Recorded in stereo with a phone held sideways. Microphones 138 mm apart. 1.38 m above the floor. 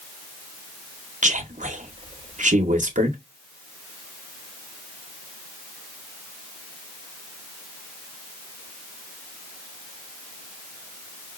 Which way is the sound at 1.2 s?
65° right (ahead or behind).